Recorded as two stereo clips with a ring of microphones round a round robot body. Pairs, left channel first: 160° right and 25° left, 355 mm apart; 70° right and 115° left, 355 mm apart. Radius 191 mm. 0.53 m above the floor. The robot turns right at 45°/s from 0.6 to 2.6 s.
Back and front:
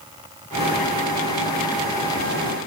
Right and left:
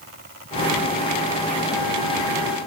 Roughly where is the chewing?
I don't hear chewing.